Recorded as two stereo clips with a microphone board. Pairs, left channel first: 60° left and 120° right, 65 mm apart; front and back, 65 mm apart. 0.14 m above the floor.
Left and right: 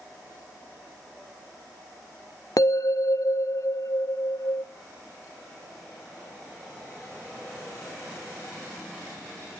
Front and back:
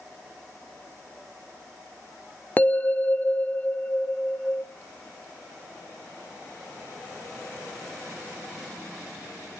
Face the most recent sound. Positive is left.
turn(degrees=60)